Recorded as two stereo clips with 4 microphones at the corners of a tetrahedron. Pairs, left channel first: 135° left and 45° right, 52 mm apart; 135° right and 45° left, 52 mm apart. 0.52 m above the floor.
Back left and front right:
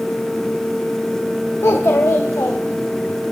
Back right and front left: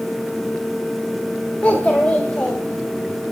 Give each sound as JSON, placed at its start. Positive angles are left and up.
{"t": 1.6, "sound": "a child speaking", "azimuth_deg": 165, "distance_m": 1.0}